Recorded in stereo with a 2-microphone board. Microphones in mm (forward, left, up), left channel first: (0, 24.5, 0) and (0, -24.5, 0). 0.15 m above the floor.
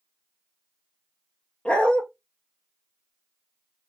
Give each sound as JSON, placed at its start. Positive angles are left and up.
{"t": 1.6, "sound": "a dog barking", "side_deg": 25, "distance_m": 0.7}